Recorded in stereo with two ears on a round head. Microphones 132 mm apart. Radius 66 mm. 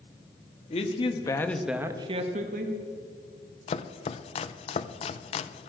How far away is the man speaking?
About 1.5 m.